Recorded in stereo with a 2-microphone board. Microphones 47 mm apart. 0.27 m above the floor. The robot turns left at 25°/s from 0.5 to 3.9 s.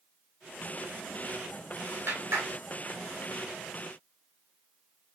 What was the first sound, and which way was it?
A clap, 60° right (ahead or behind).